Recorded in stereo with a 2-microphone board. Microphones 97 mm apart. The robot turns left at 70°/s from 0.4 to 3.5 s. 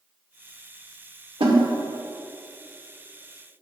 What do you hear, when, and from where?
1.4 s a snare drum: 75° right (ahead or behind), 1.3 m; by 1.6 s 65° right (ahead or behind), 1.3 m